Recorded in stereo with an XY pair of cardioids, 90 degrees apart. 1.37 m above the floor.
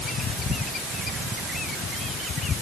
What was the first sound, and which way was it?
Only background noise.